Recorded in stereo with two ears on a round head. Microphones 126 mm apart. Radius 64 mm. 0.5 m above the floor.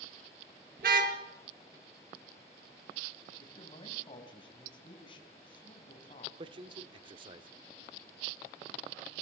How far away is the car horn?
About 3.5 m.